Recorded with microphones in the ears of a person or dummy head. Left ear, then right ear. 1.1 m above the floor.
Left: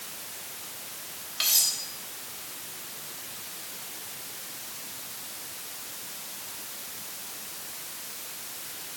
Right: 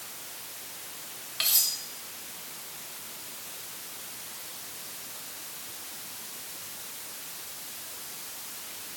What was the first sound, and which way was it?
Cutlery clinking, 10° right (ahead or behind).